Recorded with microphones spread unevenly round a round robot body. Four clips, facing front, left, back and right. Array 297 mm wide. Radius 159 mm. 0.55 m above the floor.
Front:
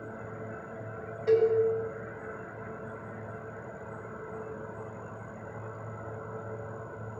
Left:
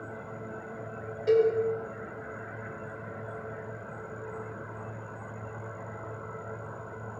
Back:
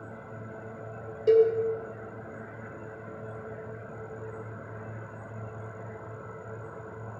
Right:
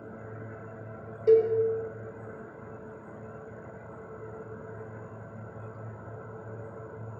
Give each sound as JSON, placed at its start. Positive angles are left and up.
{"t": 1.3, "sound": "a cowbell", "azimuth_deg": -130, "distance_m": 1.9}